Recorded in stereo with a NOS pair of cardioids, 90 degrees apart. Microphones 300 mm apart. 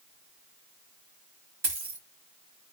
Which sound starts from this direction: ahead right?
A dropped coin, at 1.6 s.